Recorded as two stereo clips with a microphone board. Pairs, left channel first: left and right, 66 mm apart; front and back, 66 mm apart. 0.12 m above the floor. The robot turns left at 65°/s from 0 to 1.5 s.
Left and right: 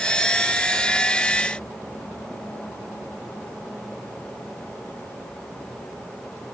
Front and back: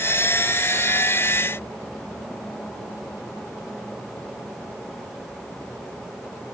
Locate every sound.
Only background noise.